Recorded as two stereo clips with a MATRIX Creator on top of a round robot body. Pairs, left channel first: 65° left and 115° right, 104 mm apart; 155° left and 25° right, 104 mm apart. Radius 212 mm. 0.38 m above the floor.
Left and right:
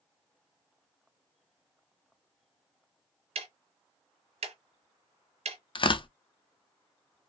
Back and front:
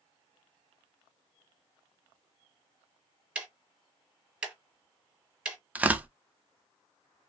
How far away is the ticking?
About 0.7 m.